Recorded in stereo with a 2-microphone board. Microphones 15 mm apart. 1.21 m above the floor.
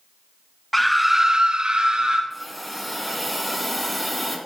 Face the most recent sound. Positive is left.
turn(degrees=5)  # may be behind; listen again after turning